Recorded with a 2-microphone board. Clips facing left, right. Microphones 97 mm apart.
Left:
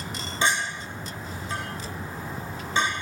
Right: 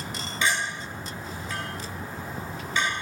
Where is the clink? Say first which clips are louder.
Left 1 dB; 35° left (ahead or behind), 2.5 m.